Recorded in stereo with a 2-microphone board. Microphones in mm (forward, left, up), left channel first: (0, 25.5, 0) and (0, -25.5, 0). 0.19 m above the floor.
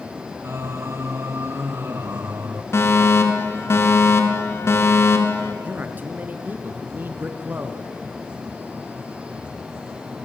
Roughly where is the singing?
Right.